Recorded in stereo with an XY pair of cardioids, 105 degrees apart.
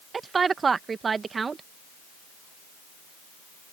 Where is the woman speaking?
35° right.